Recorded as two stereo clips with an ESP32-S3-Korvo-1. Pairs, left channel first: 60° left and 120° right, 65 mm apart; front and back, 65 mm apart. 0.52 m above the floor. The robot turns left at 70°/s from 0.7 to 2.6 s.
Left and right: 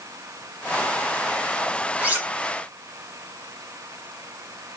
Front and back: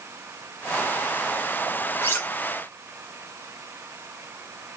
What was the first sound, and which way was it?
Cutlery clinking, 50° right.